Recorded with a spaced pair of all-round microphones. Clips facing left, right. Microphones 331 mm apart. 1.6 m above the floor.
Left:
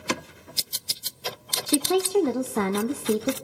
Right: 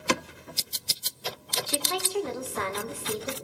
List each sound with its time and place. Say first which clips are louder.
1.7 s a woman speaking: left 12 dB; 55° left (ahead or behind), 0.6 m